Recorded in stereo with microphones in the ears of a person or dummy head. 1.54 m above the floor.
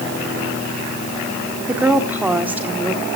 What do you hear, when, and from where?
1.7 s a woman speaking: 5° right (ahead or behind), 1.5 m